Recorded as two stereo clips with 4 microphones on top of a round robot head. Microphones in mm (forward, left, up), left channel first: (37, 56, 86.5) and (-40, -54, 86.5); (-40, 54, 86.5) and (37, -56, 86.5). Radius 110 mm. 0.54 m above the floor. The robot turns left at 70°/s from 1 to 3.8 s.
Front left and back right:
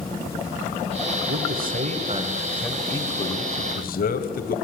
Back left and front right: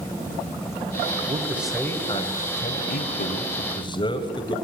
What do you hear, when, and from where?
1.3 s a man speaking: 115° right, 3 m; by 4.5 s 70° left, 3 m